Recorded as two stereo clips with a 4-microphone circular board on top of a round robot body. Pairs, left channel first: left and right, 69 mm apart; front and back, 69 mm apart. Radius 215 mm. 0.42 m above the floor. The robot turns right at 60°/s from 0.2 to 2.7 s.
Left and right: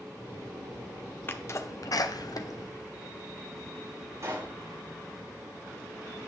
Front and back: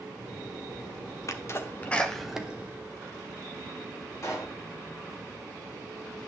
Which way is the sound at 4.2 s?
40° right.